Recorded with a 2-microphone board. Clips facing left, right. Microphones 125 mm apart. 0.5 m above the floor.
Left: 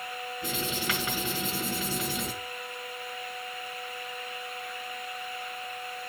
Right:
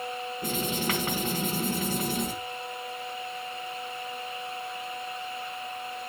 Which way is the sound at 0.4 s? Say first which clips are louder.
Right 3 dB; 45° right (ahead or behind).